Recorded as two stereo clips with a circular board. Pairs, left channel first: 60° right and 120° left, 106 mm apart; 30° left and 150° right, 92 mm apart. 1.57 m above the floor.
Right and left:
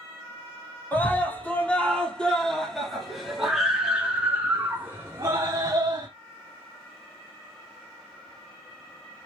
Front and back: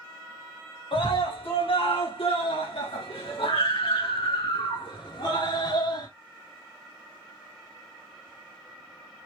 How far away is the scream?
About 4.5 m.